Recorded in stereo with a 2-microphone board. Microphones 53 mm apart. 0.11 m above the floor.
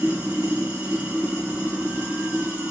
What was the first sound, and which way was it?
Running water, 40° right (ahead or behind).